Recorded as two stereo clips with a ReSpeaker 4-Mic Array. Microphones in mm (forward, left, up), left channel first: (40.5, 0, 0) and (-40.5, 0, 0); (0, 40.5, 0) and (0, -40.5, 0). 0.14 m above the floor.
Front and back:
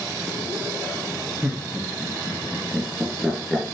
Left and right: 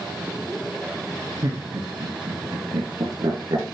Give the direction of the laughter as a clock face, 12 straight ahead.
4 o'clock.